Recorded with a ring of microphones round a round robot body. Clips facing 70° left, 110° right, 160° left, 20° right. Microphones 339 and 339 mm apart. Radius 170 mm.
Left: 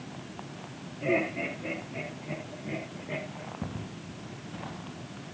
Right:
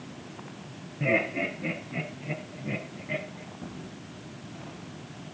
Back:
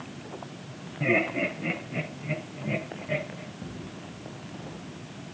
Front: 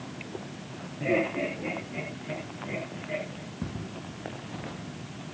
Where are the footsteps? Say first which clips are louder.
Left 2 dB, front 5 dB; 30° left, 7 m; by 4.9 s 25° left, 6.5 m.